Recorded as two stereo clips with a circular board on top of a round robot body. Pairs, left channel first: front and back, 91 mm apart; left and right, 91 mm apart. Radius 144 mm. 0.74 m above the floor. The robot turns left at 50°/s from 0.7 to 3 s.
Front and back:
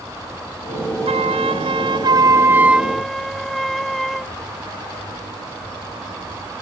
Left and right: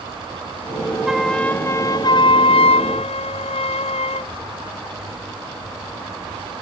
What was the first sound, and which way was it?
A flute, 175° right.